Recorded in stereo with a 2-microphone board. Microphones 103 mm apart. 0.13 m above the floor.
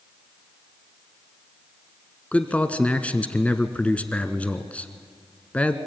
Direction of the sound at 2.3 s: 15° left (ahead or behind).